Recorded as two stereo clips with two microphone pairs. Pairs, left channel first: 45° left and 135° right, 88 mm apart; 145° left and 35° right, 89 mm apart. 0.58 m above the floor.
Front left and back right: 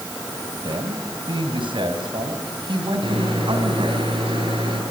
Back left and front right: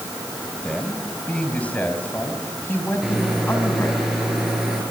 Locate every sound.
0.6 s a man speaking: 135° right, 4 m; by 4.0 s 155° right, 6 m
3.0 s a microwave: 120° right, 8.5 m